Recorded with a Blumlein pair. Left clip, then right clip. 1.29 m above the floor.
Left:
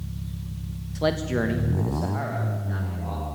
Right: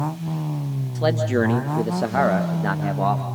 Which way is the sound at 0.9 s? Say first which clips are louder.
Right 4 dB; 5° left.